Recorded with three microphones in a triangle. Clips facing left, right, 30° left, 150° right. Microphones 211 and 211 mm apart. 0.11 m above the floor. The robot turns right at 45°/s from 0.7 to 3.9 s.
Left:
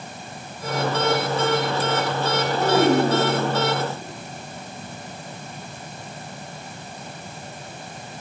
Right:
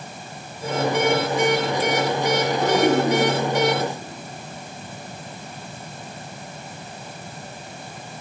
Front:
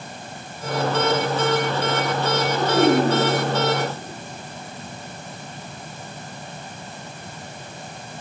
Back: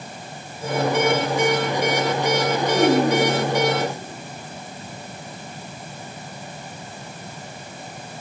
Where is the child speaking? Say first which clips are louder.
Left 2 dB, front 1 dB; 35° left, 4 m; by 3.6 s 80° left, 4 m.